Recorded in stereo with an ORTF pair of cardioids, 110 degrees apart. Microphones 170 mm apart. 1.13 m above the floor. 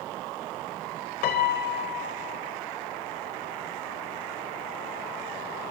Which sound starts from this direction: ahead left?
A piano, at 1.2 s.